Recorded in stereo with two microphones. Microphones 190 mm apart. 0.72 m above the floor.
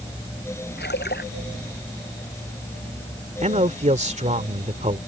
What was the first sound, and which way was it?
A splash, 60° left (ahead or behind).